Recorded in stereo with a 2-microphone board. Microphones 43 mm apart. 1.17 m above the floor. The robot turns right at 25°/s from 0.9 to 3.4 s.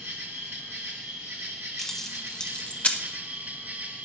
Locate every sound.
0.0 s an insect: 110° right, 1.7 m; by 4.0 s 45° right, 1.7 m
1.8 s keys jangling: 5° left (ahead or behind), 0.9 m; by 3.0 s 35° left (ahead or behind), 0.9 m